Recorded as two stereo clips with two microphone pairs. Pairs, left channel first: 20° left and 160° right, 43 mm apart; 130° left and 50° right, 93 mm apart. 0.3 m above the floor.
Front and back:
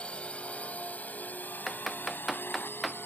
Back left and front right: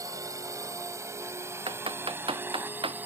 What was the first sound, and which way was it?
A drone, 30° right.